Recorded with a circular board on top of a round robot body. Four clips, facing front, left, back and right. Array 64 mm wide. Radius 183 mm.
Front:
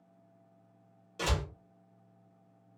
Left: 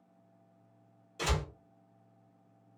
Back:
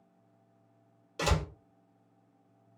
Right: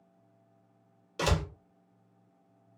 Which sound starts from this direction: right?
A door slam, at 1.2 s.